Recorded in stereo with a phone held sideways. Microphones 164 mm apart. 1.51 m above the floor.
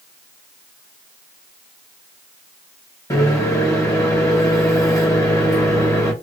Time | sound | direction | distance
3.1 | a microwave | 20° left (ahead or behind) | 1.0 m